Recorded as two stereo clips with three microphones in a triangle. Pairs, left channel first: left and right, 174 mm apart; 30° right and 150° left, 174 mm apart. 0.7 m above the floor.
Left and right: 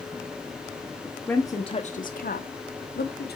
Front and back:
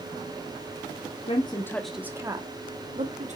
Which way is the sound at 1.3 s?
10° left.